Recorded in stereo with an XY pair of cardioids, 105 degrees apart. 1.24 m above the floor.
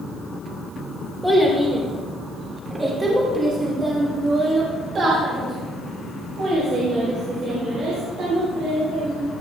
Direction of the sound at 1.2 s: 5° right.